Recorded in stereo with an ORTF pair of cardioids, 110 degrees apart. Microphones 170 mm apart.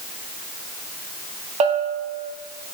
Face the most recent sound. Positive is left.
turn(degrees=-40)